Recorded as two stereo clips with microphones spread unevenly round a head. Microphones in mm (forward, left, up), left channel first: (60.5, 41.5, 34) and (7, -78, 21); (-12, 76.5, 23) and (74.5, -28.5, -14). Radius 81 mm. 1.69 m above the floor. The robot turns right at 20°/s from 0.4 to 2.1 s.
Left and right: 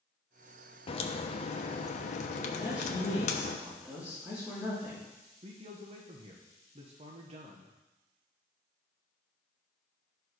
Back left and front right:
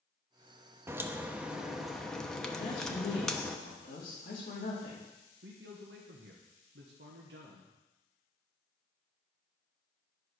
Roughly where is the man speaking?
Right.